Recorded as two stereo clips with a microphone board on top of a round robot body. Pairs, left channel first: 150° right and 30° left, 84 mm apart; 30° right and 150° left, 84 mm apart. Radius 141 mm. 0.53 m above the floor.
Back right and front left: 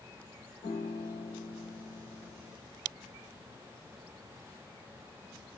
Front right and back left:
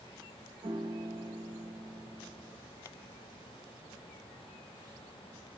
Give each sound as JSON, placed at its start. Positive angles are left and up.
{"t": 0.6, "sound": "a piano", "azimuth_deg": -165, "distance_m": 0.7}